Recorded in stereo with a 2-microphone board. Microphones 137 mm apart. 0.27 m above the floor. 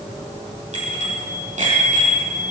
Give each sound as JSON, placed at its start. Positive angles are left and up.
{"t": 0.7, "sound": "a bicycle bell", "side_deg": -60, "distance_m": 7.0}